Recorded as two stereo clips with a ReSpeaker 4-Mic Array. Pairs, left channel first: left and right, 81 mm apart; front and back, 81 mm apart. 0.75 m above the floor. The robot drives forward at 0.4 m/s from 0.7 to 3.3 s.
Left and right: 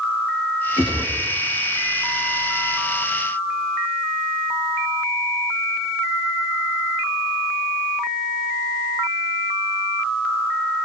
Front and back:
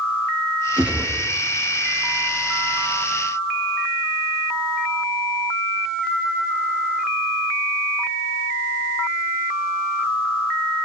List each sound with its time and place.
0.8 s a gunshot: 105° left, 7.5 m; by 1.1 s 110° left, 7.5 m